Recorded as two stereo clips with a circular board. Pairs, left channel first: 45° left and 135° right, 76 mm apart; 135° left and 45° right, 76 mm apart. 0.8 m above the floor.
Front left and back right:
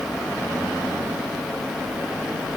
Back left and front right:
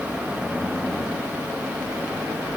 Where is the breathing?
I don't hear breathing.